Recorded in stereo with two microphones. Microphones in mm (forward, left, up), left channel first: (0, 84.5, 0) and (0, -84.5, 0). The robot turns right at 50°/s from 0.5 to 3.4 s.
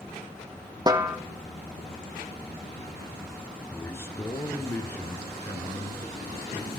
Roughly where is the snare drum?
Right.